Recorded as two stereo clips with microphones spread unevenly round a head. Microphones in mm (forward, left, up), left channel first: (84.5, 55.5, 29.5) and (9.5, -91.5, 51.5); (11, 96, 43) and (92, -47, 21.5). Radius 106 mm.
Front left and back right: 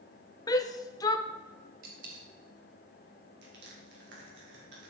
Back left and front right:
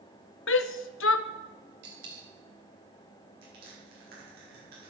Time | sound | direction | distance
0.5 | a shout | 135° left | 0.6 m
1.8 | a dropped coin | 100° right | 3 m
3.4 | crushing | 105° right | 4 m